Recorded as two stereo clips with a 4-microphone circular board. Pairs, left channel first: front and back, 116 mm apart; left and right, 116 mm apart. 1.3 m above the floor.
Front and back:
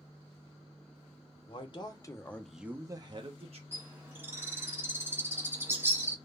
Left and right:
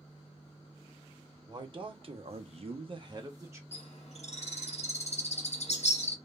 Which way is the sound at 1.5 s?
40° right.